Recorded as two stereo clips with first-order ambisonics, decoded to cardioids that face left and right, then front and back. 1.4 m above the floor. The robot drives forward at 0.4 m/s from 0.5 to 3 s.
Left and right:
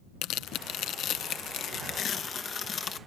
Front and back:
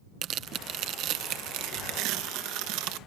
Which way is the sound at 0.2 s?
130° left.